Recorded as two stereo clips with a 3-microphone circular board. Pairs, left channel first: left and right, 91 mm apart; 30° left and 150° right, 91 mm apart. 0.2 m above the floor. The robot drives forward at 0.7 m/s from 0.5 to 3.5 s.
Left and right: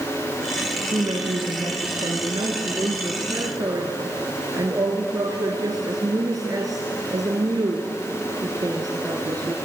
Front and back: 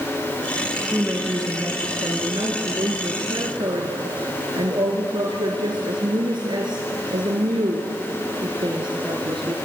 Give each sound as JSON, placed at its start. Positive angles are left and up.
{"t": 0.9, "sound": "a woman speaking", "azimuth_deg": -85, "distance_m": 2.0}